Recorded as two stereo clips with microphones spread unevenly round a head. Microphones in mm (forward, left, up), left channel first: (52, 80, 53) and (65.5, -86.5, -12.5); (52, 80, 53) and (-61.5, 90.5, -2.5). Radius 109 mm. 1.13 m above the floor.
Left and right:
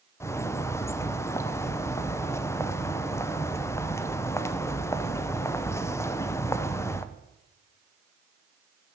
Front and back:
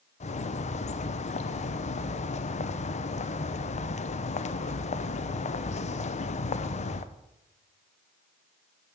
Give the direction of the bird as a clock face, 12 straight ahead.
12 o'clock.